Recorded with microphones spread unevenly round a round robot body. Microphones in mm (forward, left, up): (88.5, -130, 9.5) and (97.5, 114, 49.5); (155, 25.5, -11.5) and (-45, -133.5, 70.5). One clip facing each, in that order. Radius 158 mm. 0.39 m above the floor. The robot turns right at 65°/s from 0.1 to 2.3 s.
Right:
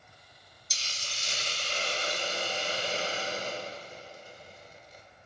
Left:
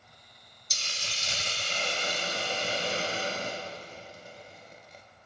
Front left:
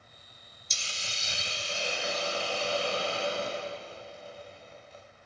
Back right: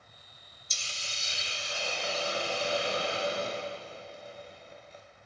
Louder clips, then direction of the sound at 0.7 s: Left 4 dB, front left 2 dB; 35° left.